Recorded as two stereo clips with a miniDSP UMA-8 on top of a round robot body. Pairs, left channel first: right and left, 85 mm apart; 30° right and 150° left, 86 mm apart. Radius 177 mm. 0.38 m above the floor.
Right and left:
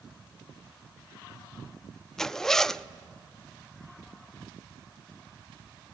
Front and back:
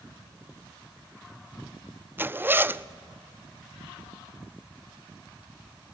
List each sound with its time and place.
2.2 s a zipper: 170° right, 0.6 m